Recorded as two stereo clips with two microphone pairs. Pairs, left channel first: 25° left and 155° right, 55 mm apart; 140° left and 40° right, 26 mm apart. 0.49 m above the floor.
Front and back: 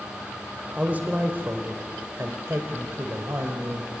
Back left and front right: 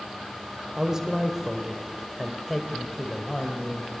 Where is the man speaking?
95° right, 2 m; by 4.0 s 150° right, 2.5 m.